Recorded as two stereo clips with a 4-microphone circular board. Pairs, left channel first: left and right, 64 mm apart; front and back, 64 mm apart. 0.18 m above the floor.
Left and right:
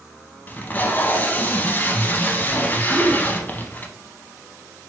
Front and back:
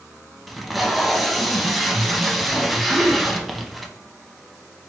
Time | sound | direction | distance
0.5 | tape being pulled | 90° left | 0.6 m
2.9 | a gasp | 35° right | 1.7 m